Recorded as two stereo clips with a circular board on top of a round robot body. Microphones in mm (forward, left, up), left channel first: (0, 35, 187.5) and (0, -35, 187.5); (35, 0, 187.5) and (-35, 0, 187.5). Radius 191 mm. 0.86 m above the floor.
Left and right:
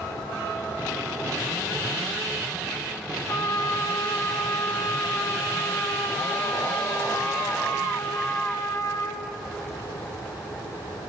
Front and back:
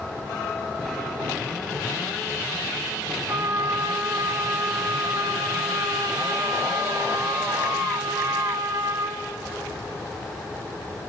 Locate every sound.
3.3 s a trumpet: 130° left, 1.7 m